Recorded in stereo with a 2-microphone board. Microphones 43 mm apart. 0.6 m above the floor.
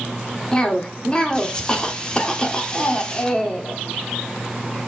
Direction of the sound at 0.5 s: 20° left (ahead or behind).